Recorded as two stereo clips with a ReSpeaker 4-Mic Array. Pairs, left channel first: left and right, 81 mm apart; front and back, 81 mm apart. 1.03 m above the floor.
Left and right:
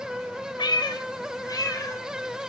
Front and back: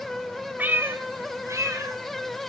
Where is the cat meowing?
115° left, 1.7 m; by 2.0 s 135° left, 3 m.